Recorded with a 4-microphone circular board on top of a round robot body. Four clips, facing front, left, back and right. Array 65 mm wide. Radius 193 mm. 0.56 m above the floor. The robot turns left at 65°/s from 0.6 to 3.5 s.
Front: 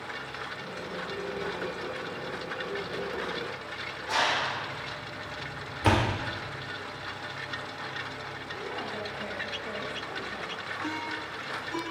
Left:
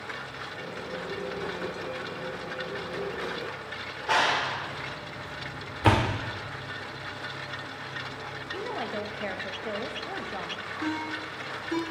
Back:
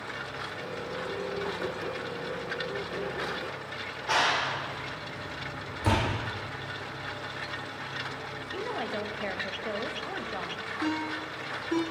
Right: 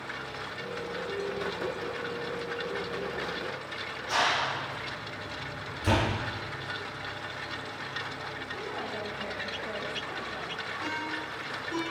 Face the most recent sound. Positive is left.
turn(degrees=155)